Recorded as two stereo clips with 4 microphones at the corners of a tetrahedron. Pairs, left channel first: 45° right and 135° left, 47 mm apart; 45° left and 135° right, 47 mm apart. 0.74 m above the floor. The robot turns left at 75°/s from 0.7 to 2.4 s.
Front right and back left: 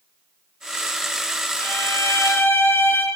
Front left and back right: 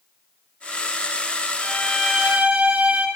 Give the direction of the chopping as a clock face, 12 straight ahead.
I don't hear chopping.